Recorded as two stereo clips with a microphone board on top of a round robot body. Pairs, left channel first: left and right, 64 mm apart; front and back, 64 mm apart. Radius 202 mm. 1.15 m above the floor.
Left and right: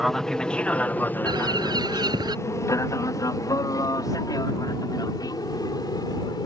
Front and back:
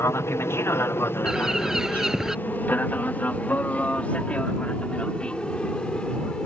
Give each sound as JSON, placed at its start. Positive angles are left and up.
{"t": 0.0, "sound": "an aircraft", "azimuth_deg": 5}
{"t": 1.2, "sound": "a bird", "azimuth_deg": -95}